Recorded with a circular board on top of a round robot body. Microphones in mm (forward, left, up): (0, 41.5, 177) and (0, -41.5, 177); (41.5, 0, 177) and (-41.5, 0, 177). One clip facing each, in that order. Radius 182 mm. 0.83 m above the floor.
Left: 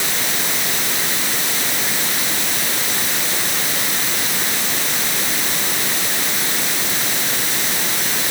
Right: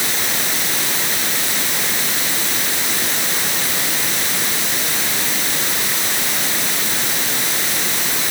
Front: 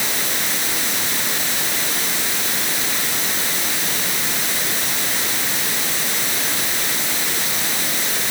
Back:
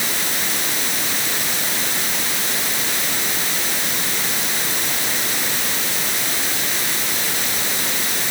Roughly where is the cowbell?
I don't hear a cowbell.